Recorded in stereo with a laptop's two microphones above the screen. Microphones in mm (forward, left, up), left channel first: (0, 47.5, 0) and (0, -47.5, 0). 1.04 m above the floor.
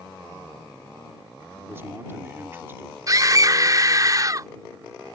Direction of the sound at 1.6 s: 25° right (ahead or behind).